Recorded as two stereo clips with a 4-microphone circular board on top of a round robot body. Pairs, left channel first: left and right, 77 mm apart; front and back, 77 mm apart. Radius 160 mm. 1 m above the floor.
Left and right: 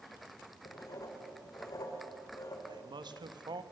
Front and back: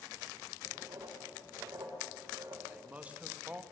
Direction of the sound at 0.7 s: 135° left.